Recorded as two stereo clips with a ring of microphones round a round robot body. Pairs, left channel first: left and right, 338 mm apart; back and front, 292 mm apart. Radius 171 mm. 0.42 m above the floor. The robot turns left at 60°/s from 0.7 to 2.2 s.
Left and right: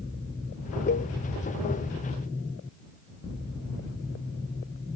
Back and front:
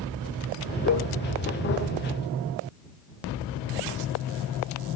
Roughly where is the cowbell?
Behind left.